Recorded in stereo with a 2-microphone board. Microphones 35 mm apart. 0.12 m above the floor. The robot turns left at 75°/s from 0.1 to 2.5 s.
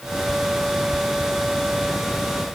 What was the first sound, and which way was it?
Only background noise.